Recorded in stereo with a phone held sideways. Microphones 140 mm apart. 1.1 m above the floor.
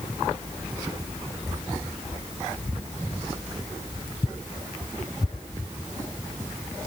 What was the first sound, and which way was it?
Only background noise.